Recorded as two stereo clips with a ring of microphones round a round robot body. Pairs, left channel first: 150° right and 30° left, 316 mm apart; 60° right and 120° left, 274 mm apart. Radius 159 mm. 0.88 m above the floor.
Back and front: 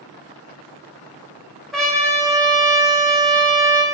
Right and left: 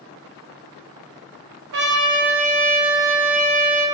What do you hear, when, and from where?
1.7 s a trumpet: 120° left, 1.1 m